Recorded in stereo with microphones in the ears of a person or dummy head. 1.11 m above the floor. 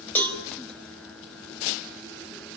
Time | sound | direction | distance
0.1 | a cowbell | 10° left (ahead or behind) | 4.5 m